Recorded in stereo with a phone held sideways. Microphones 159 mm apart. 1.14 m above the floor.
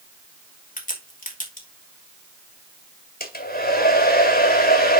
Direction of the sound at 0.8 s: 60° left (ahead or behind).